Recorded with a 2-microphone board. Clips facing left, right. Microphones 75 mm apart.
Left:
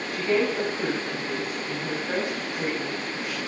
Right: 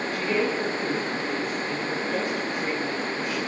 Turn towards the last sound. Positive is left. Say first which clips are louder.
# left 3 dB
turn(degrees=50)  # may be behind; listen again after turning